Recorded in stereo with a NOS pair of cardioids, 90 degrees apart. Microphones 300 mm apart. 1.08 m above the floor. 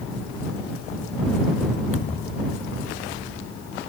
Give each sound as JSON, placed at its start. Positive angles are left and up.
{"t": 1.9, "sound": "a thud", "azimuth_deg": 45}